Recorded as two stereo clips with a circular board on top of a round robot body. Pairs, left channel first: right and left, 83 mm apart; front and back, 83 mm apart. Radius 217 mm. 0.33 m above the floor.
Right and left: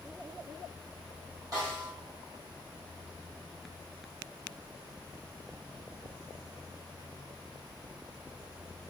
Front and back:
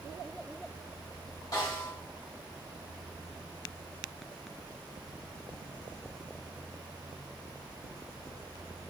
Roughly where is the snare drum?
Ahead left.